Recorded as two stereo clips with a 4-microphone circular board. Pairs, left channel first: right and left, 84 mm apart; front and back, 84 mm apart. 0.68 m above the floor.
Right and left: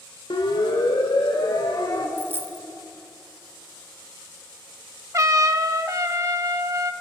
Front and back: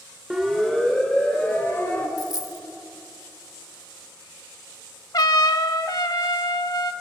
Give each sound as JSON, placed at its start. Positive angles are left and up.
{"t": 0.3, "sound": "a siren", "azimuth_deg": -95, "distance_m": 2.5}
{"t": 2.2, "sound": "a dropped coin", "azimuth_deg": 30, "distance_m": 0.5}
{"t": 5.1, "sound": "a trumpet", "azimuth_deg": 40, "distance_m": 0.9}